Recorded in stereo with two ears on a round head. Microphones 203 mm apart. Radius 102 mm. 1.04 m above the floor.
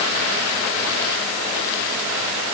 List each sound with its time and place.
Only background noise.